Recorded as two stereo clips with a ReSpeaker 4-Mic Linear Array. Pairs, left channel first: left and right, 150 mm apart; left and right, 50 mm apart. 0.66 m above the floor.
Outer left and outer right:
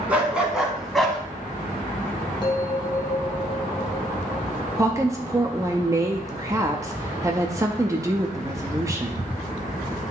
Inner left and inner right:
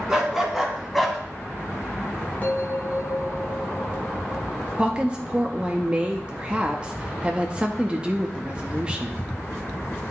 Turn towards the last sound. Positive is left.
turn(degrees=-20)  # may be behind; listen again after turning